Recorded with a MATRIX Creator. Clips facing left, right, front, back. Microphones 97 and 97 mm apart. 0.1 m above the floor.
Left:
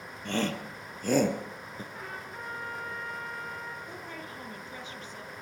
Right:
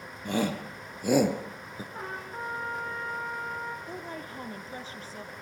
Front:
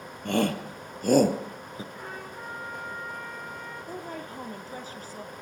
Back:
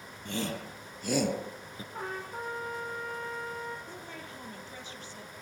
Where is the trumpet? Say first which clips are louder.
Right 7 dB, back 2 dB; 145° right, 7 m.